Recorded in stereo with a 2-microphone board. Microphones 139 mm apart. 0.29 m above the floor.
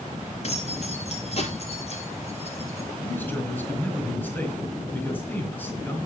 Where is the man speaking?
15° left (ahead or behind), 4.5 m.